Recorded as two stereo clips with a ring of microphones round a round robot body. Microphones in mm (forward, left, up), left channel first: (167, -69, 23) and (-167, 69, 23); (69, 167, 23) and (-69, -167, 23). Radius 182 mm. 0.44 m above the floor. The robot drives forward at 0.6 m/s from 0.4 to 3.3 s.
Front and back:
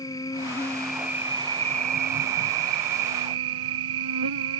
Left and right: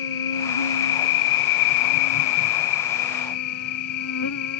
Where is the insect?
60° left; by 4.6 s 120° left.